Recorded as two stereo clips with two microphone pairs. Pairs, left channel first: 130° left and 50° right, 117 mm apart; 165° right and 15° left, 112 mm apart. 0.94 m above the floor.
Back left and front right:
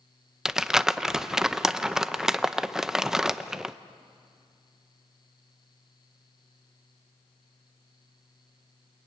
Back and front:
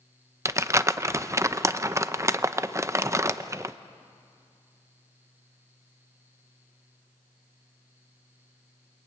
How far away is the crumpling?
About 0.6 m.